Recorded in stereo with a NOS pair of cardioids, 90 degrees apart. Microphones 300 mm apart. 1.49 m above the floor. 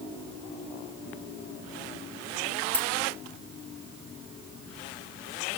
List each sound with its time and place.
2.7 s keys jangling: 5° left, 1.4 m